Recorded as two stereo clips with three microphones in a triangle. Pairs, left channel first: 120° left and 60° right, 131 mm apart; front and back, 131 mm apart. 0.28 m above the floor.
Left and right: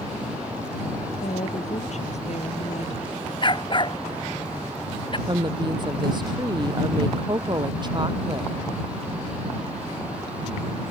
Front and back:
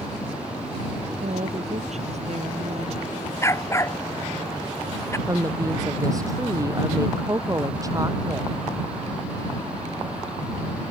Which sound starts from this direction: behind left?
A woman speaking, at 1.2 s.